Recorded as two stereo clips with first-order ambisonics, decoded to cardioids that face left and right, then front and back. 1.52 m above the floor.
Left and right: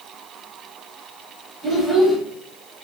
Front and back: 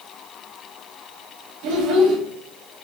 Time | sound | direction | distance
1.6 | a child speaking | 175° right | 1.3 m